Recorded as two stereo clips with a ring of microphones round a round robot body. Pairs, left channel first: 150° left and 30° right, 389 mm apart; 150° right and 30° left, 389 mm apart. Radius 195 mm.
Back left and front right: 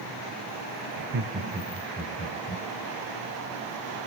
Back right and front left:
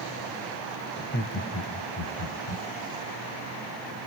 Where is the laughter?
85° right, 1.7 m; by 2.6 s 145° right, 1.6 m.